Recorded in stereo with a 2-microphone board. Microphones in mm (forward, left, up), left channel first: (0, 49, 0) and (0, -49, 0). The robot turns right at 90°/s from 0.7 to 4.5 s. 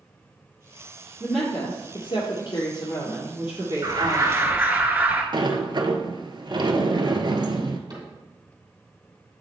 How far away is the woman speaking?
About 1.9 m.